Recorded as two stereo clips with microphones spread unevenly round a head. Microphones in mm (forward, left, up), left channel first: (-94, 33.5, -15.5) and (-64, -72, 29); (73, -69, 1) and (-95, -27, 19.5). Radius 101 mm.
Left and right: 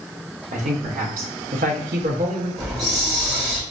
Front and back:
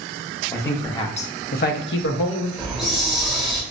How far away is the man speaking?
About 0.8 m.